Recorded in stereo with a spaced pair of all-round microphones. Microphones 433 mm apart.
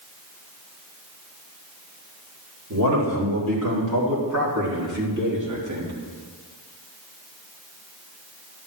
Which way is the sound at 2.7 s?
50° right (ahead or behind).